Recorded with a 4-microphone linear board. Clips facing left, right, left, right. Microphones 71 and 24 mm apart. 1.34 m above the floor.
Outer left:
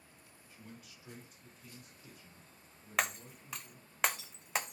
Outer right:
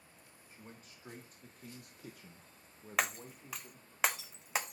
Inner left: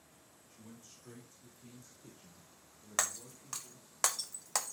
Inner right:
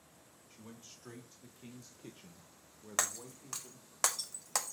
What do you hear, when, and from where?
0.5 s a man speaking: 30° right (ahead or behind), 1.7 m; by 4.0 s 35° right (ahead or behind), 1.7 m
3.0 s breaking glass: centre (ahead or behind), 0.6 m